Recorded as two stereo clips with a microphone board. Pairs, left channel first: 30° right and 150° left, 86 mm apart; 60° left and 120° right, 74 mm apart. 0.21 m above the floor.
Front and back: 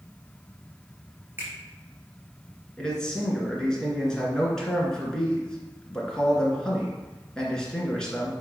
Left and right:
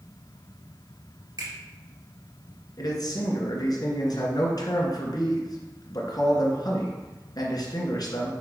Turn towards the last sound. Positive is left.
turn(degrees=50)